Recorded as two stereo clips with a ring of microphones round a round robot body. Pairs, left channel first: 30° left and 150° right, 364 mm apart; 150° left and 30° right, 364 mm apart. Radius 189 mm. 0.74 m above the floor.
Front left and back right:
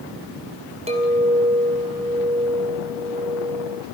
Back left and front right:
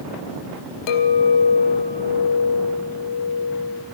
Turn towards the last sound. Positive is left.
turn(degrees=135)